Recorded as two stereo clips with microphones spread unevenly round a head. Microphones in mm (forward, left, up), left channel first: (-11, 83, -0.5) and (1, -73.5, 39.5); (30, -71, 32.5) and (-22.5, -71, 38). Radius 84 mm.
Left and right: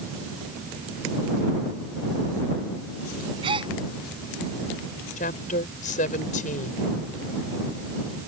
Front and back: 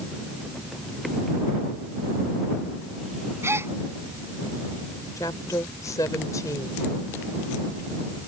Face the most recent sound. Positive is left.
turn(degrees=50)